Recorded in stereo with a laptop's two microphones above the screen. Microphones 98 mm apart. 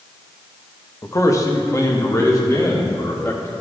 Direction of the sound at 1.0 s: 30° left (ahead or behind).